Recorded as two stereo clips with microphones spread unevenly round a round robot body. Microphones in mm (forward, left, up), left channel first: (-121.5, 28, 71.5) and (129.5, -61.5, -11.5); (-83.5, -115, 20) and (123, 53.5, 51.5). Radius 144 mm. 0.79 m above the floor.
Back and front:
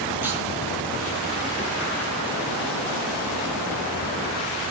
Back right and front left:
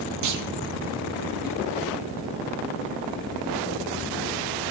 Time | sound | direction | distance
0.2 | a clunk | 70° left | 0.7 m